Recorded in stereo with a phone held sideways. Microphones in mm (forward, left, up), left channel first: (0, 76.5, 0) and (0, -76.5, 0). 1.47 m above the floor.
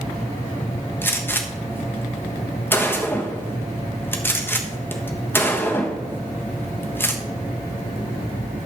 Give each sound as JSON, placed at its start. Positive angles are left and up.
{"t": 1.0, "sound": "a gunshot", "side_deg": 15, "distance_m": 1.3}